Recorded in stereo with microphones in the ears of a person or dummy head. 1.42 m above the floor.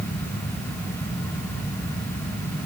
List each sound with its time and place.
Only background noise.